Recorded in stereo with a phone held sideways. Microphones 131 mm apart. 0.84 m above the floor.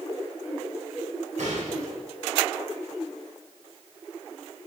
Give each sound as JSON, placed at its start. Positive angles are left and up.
{"t": 1.4, "sound": "a gunshot", "side_deg": -70, "distance_m": 3.0}